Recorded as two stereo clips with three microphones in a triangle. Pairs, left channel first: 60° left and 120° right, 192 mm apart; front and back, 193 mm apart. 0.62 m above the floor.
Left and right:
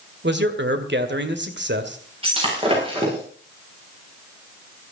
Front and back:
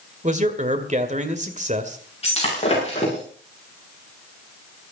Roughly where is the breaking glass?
Ahead right.